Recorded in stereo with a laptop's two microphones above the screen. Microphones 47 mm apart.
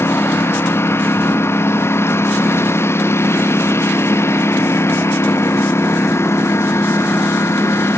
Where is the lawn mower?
60° left (ahead or behind); by 8.0 s 75° left (ahead or behind).